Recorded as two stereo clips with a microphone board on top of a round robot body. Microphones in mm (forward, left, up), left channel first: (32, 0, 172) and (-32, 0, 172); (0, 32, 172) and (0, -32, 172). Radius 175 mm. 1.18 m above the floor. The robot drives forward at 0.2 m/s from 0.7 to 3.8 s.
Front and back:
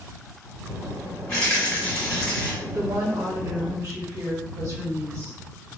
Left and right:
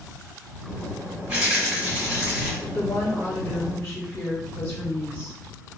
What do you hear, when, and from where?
1.3 s a rattle: 40° right, 1.8 m; by 2.5 s 50° right, 1.6 m
2.6 s a woman speaking: 145° left, 0.6 m; by 5.4 s 155° left, 0.8 m